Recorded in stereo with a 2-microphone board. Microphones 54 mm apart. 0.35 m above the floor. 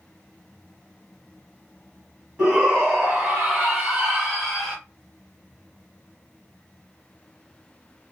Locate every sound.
2.4 s a shout: 10° right (ahead or behind), 2.5 m; by 4.8 s centre (ahead or behind), 1.4 m